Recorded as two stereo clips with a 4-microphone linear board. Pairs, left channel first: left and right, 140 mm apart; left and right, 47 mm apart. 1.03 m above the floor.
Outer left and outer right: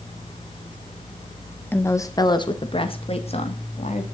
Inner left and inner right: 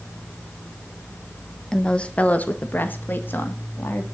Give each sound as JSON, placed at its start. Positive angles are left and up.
{"t": 1.7, "sound": "a woman speaking", "side_deg": 15, "distance_m": 1.1}